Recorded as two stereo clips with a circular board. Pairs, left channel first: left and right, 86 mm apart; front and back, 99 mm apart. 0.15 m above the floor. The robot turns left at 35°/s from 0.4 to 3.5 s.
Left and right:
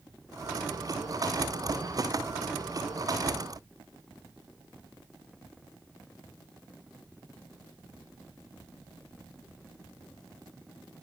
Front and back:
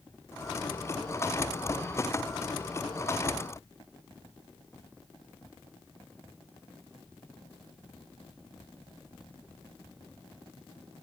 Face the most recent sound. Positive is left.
No sound to turn to.